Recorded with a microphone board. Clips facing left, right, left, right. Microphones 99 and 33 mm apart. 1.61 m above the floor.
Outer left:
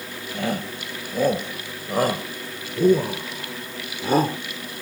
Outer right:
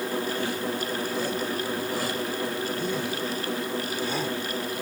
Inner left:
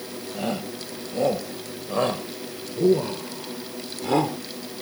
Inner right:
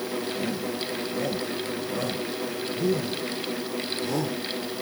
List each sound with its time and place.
0.3 s a shout: 55° left (ahead or behind); by 4.4 s 50° left (ahead or behind)